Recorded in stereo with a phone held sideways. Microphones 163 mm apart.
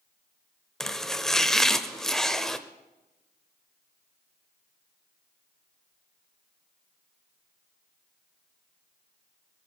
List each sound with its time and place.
0.8 s chopping: centre (ahead or behind), 0.7 m